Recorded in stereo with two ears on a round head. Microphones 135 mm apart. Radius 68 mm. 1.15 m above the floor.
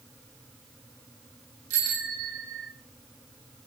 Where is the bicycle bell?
60° right (ahead or behind), 5.5 m; by 2.7 s 65° right (ahead or behind), 5 m.